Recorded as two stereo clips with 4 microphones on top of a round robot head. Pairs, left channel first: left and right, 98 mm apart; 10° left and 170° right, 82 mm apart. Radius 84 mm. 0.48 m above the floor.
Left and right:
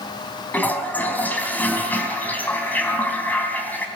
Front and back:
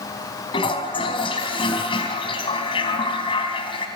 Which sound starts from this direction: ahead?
A toilet flushing, at 0.5 s.